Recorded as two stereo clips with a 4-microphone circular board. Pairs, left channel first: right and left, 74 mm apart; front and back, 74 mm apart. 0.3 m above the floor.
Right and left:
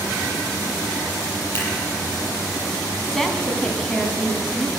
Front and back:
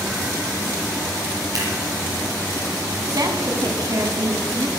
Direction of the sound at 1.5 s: 145° right.